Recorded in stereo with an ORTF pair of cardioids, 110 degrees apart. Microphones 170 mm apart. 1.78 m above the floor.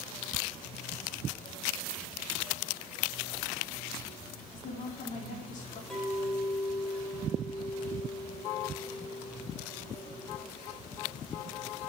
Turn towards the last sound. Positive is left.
turn(degrees=5)